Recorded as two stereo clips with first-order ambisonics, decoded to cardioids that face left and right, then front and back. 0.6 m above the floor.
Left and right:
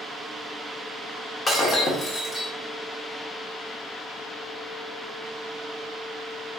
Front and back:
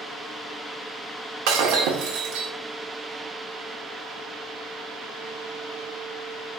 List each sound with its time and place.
1.5 s breaking glass: 165° left, 0.9 m